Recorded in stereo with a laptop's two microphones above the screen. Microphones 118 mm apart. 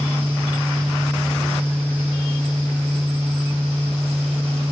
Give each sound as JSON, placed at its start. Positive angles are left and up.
{"t": 0.0, "sound": "a fan", "side_deg": 15, "distance_m": 5.0}